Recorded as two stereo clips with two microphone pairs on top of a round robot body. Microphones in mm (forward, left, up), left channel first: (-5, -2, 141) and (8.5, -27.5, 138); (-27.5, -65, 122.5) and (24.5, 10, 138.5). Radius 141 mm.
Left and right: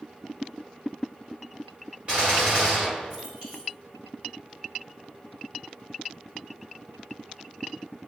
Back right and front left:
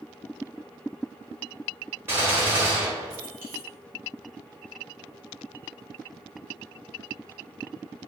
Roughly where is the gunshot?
Ahead.